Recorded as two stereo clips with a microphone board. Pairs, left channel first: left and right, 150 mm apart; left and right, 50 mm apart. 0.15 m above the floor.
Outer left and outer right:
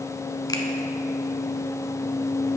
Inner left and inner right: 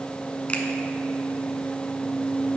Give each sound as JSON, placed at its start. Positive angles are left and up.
{"t": 0.5, "sound": "a finger snap", "side_deg": 25, "distance_m": 1.0}